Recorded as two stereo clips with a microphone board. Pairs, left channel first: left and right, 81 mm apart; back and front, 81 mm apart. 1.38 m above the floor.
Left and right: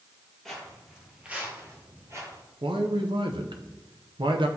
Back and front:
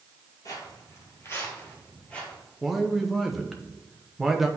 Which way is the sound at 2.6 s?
90° right.